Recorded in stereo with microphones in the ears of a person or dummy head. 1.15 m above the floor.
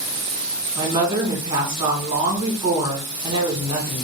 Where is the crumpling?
I don't hear crumpling.